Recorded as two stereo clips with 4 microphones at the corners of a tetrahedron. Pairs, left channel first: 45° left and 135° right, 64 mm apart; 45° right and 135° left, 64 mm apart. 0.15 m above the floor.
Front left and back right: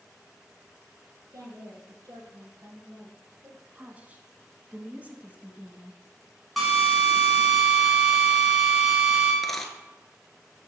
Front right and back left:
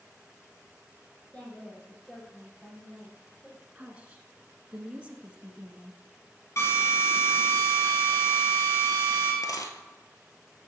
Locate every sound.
1.3 s a woman speaking: 115° right, 3 m; by 3.6 s 125° right, 2 m
3.8 s a woman speaking: 175° right, 1.2 m
6.6 s a drill: 45° right, 2.5 m
9.4 s a dropped coin: 40° right, 0.9 m